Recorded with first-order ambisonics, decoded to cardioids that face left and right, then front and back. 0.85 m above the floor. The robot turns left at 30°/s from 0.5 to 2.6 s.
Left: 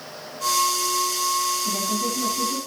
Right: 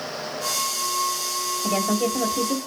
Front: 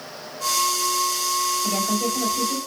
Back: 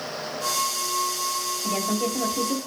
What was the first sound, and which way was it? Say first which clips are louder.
A woman speaking: right 2 dB, front 2 dB; 90° right.